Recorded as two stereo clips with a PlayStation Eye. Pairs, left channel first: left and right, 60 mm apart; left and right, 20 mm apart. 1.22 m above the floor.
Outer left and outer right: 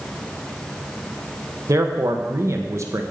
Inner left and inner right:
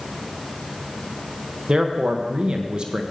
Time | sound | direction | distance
1.7 | a man speaking | 55° right (ahead or behind) | 1.0 m